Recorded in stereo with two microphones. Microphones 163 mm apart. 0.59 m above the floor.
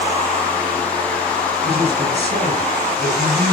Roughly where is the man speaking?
Right.